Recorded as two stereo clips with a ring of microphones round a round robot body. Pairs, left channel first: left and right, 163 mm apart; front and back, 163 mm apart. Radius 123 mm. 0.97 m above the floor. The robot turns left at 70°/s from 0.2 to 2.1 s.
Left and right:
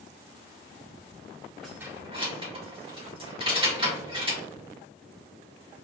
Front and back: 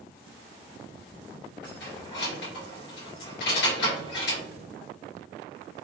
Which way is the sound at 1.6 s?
Straight ahead.